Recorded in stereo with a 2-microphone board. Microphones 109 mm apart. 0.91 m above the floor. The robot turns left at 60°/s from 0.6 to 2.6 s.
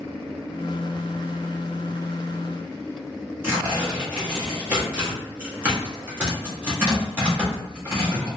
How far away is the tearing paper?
About 1.5 m.